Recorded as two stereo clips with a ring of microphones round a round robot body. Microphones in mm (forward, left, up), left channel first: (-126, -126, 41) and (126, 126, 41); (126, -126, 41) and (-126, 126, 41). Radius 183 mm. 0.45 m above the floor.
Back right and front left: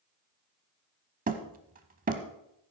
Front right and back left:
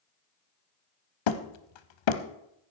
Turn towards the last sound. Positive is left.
turn(degrees=-25)